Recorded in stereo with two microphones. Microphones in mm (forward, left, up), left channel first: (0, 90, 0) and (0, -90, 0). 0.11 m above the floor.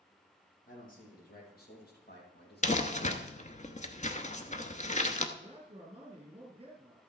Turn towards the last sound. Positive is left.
turn(degrees=-30)  # may be behind; listen again after turning